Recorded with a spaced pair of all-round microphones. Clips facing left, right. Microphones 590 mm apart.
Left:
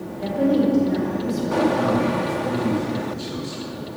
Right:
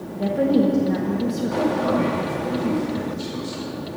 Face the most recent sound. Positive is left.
turn(degrees=40)  # may be behind; listen again after turning